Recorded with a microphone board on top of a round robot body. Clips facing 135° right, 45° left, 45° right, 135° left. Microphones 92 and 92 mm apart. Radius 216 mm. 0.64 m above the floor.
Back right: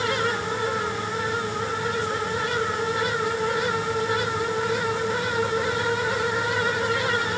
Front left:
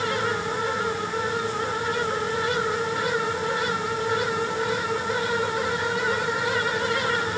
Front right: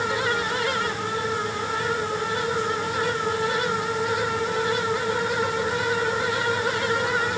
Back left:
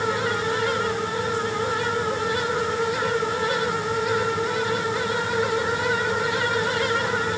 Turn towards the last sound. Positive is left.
No sound to turn to.